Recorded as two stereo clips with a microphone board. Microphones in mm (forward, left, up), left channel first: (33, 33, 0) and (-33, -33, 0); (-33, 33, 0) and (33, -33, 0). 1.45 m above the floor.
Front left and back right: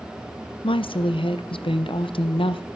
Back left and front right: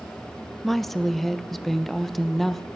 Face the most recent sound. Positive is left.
turn(degrees=45)